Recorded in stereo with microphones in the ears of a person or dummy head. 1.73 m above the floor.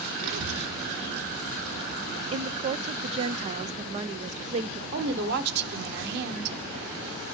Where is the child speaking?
60° right (ahead or behind), 1.3 m; by 2.2 s 80° right, 4 m.